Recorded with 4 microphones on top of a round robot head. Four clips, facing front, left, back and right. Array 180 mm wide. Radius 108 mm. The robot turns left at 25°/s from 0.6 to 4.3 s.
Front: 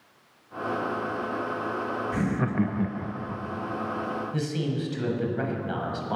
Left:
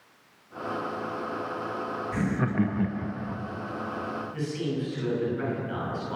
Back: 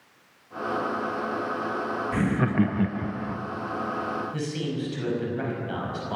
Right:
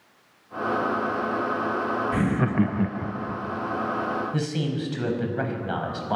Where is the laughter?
120° right, 0.5 m; by 3.4 s 150° right, 0.5 m.